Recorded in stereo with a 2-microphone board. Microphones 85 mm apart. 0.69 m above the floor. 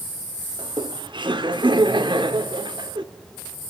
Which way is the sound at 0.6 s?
70° right (ahead or behind).